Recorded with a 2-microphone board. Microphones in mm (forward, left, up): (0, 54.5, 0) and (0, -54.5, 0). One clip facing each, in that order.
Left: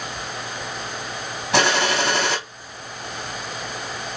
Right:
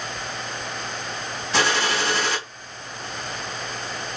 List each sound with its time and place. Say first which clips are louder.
1.5 s a gunshot: left 3 dB; 65° left (ahead or behind), 2.5 m